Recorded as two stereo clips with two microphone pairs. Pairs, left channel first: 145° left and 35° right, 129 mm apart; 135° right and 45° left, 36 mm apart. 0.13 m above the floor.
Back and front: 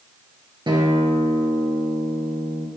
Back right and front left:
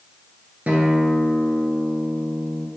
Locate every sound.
0.7 s a guitar: 10° left, 2.5 m